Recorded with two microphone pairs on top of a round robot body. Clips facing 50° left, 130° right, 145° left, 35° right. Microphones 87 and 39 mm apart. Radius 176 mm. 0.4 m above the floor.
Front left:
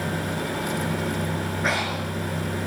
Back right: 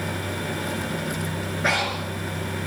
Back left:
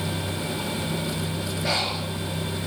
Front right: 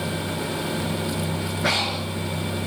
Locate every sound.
1.6 s breathing: 40° right, 5 m